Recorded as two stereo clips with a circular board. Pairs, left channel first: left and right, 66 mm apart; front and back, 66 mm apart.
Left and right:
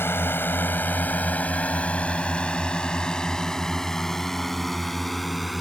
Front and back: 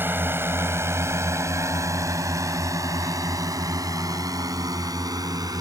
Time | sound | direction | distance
0.0 | a drone | 135° left | ?